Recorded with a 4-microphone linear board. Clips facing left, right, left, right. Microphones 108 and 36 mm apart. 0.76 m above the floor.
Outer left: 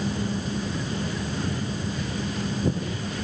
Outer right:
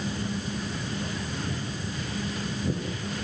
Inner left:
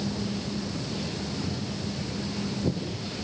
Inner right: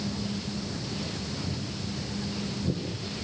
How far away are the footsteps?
About 7 m.